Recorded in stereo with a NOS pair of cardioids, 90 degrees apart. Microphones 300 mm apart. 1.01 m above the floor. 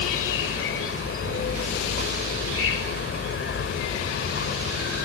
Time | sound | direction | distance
0.0 | an insect | 45° left | ?